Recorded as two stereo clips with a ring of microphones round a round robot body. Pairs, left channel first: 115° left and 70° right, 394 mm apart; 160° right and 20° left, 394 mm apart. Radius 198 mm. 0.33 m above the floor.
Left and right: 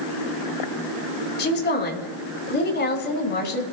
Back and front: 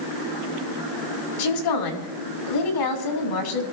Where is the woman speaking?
175° left, 3 m.